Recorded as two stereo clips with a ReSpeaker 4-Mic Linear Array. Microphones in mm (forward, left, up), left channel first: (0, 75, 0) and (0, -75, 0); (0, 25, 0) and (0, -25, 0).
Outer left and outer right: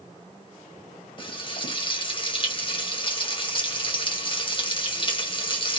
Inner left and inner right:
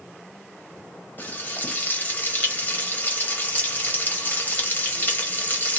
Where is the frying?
35° left (ahead or behind), 1.0 m.